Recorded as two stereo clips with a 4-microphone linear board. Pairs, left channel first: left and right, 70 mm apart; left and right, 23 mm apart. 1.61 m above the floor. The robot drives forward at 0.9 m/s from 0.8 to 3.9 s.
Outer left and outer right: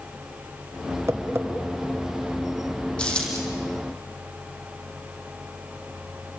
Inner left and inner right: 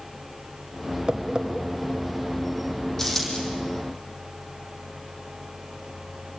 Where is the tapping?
40° right (ahead or behind), 1.4 m; by 1.5 s 35° right (ahead or behind), 1.7 m.